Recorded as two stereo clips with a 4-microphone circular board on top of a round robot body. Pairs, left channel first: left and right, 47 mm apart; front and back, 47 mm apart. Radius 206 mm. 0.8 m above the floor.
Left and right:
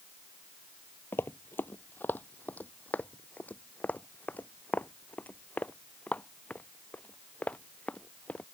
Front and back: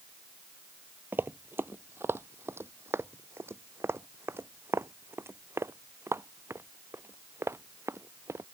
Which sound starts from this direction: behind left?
Running footsteps, at 1.1 s.